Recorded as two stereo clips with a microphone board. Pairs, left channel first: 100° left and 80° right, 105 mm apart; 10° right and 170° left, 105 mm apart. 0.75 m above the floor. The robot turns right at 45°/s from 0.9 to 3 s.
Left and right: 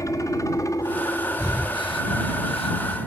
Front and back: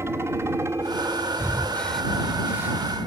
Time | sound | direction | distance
0.0 | a helicopter | 125° left | ?
1.4 | breathing | 45° left | ?